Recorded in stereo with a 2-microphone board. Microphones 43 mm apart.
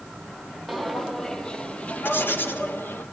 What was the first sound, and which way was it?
Footsteps, centre (ahead or behind).